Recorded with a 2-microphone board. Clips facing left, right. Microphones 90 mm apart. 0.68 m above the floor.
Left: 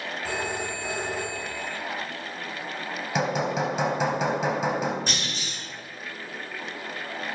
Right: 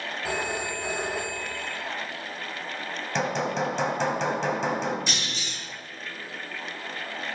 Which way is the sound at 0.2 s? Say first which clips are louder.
Right 1 dB; 10° right (ahead or behind).